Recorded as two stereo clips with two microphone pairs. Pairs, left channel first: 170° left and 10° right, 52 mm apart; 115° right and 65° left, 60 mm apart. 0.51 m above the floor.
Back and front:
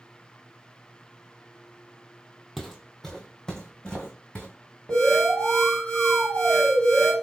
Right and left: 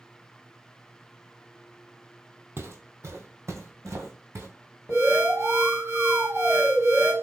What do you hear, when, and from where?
2.6 s footsteps: 85° left, 0.7 m; by 4.5 s 100° left, 1.6 m
4.9 s an alarm: 105° left, 2.5 m